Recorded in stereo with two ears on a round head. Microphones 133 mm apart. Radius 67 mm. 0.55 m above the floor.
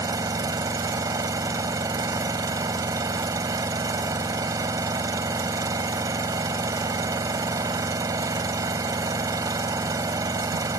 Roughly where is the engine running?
Right.